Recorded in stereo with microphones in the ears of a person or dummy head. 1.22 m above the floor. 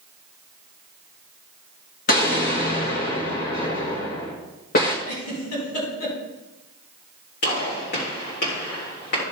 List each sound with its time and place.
2.1 s an explosion: 45° left (ahead or behind), 1.8 m
5.0 s a giggle: 85° left, 5 m
7.4 s a gunshot: 50° left (ahead or behind), 3.5 m